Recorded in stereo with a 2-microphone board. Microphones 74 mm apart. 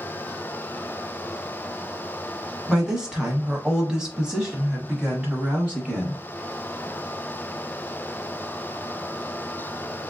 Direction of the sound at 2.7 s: 10° right (ahead or behind).